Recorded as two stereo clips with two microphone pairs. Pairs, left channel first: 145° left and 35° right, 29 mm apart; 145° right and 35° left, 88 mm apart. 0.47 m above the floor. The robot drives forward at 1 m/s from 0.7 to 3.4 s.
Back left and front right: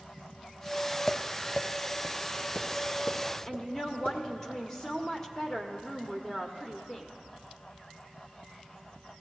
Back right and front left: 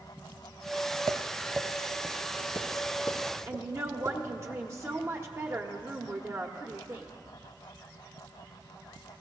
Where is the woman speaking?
80° left, 1.0 m.